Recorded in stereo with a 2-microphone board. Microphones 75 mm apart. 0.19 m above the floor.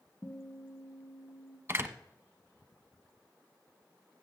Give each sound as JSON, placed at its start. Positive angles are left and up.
{"t": 0.2, "sound": "a guitar", "side_deg": 30, "distance_m": 1.5}
{"t": 1.7, "sound": "a door slam", "side_deg": -35, "distance_m": 0.9}